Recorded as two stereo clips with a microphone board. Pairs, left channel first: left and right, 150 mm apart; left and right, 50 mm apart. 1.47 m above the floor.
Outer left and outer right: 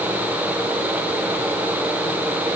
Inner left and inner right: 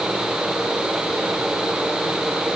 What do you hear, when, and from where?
Only background noise.